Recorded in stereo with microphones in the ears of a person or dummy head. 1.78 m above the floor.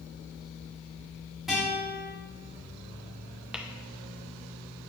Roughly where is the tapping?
Centre.